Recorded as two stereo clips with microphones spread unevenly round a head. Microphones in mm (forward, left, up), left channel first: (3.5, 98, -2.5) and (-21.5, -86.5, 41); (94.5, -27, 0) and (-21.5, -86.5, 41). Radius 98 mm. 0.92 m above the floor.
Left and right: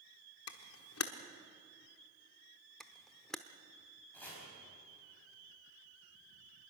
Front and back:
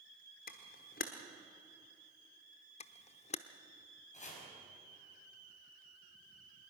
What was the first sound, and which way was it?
A camera shutter, 65° left.